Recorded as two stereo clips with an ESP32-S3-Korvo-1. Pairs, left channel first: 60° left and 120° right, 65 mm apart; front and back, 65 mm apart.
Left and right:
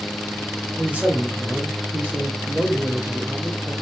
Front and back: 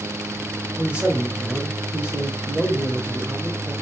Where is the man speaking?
135° right, 1.0 m.